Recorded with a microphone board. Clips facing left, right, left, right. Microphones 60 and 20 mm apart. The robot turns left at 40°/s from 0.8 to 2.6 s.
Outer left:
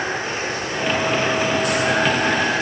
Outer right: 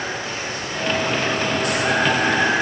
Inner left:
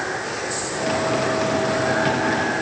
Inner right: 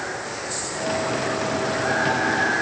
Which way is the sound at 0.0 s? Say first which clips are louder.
Outer left 3 dB, inner left 4 dB; 45° left.